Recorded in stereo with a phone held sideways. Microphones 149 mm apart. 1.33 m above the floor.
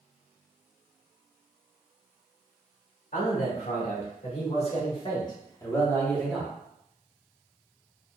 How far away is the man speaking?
About 2 m.